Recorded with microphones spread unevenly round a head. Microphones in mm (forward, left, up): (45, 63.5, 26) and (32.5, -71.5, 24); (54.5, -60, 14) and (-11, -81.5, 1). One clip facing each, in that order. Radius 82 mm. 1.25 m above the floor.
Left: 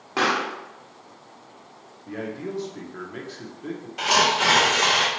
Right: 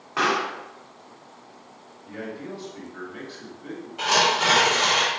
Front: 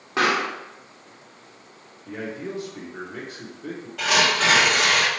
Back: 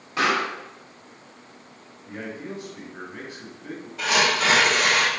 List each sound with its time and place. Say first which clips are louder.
0.2 s a pop: even, front 1 dB; 40° left, 0.9 m
2.1 s a man speaking: left 3 dB, front 3 dB; 50° left, 1.0 m
4.0 s tearing paper: even, front 1 dB; 85° left, 1.5 m